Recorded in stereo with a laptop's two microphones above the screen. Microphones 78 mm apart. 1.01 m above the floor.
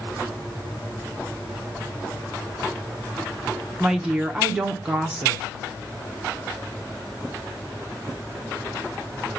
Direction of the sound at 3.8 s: 10° right (ahead or behind).